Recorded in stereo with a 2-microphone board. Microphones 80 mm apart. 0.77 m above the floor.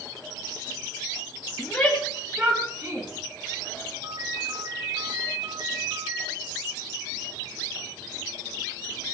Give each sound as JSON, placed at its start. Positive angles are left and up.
{"t": 1.6, "sound": "a shout", "side_deg": 20, "distance_m": 1.3}
{"t": 4.0, "sound": "a ringtone", "side_deg": -60, "distance_m": 2.5}